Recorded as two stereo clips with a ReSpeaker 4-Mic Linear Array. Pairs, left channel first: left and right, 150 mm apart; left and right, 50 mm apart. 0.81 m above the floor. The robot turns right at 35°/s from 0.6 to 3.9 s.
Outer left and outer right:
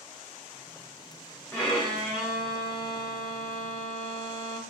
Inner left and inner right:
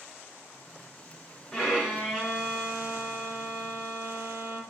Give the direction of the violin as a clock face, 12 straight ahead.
7 o'clock.